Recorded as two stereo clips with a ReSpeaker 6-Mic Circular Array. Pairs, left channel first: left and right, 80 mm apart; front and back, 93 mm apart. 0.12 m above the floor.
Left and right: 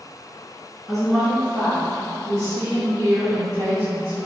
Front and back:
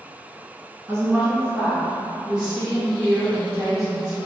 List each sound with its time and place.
0.9 s a woman speaking: straight behind, 1.2 m; by 4.3 s 85° right, 2.5 m